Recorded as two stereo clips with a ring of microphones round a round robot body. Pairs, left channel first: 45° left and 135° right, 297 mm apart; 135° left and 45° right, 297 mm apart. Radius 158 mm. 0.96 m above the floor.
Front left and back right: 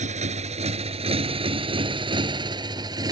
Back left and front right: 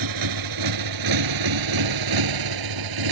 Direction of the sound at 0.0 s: 65° right.